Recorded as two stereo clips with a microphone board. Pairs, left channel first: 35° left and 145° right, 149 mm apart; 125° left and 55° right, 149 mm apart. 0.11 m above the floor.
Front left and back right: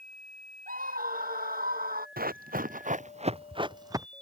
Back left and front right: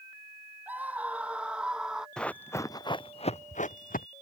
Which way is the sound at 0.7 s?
135° right.